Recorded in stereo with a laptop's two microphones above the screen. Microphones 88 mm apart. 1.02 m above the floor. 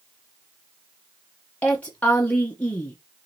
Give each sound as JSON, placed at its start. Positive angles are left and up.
{"t": 1.6, "sound": "a woman speaking", "side_deg": 15, "distance_m": 0.7}